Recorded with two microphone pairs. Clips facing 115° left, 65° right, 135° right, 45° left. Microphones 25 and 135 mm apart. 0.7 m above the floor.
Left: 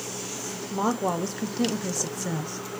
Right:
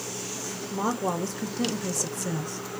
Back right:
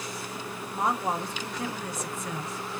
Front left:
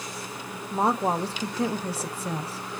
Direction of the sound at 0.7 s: 55° left.